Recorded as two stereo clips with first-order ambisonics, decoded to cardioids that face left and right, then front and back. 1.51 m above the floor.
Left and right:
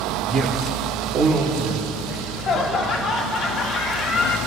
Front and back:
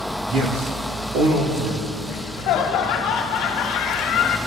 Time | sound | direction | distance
0.3 | a man speaking | 150° right | 3.5 m
2.1 | laughter | 35° left | 1.7 m